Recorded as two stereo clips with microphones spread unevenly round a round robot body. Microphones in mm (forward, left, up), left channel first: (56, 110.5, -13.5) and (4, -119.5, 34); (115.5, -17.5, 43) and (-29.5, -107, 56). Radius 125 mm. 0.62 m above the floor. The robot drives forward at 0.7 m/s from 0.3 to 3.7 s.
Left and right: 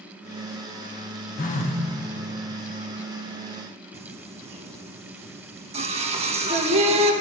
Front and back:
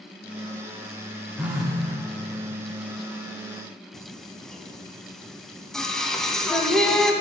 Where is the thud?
I don't hear a thud.